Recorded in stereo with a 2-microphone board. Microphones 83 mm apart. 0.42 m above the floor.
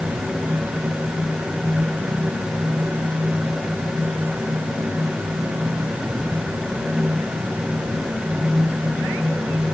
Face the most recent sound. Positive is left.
No sound to turn to.